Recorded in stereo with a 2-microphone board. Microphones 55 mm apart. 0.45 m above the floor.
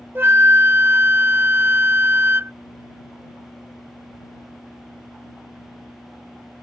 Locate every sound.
0.1 s a flute: 40° right (ahead or behind)